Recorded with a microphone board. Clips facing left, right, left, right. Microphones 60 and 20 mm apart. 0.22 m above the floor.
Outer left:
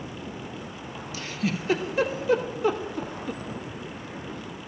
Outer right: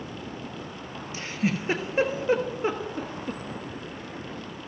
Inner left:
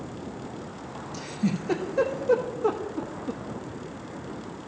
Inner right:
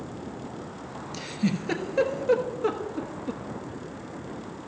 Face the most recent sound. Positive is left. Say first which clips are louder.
# outer right 2 dB, even
turn(degrees=-30)  # may be behind; listen again after turning